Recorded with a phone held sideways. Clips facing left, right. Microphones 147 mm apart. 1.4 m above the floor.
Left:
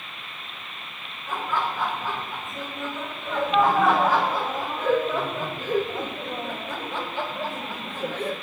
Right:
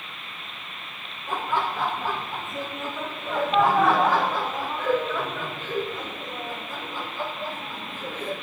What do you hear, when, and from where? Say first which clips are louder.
1.3 s laughter: right 1 dB; 20° right (ahead or behind), 3 m; by 8.3 s 70° left (ahead or behind), 1.6 m